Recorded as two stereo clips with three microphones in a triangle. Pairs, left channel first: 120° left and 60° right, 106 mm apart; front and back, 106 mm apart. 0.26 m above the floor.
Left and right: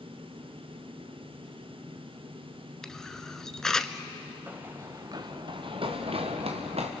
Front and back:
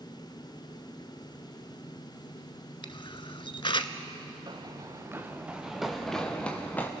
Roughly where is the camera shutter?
Ahead left.